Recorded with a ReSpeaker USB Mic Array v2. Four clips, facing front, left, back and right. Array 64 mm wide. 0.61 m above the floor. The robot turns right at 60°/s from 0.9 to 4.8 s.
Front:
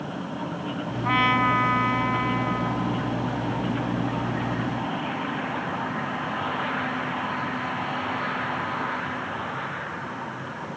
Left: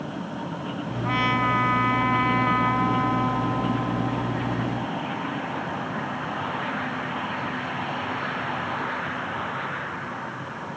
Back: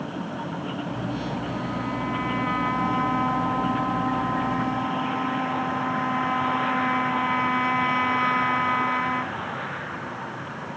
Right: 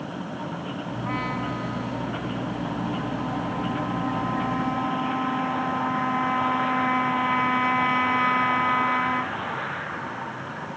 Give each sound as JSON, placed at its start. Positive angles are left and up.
{"t": 1.0, "sound": "a trumpet", "azimuth_deg": 10}